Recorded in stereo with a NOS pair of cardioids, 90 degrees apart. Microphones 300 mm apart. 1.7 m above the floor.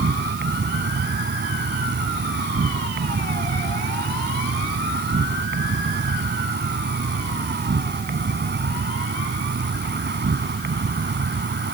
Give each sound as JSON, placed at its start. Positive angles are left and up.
{"t": 0.0, "sound": "an insect", "azimuth_deg": -35}